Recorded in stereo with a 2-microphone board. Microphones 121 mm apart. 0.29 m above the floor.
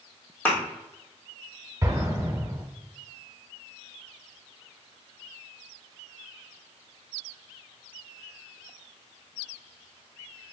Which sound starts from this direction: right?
An explosion, at 1.8 s.